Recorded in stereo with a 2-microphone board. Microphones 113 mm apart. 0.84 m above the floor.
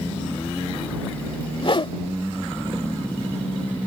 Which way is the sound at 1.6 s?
50° left (ahead or behind).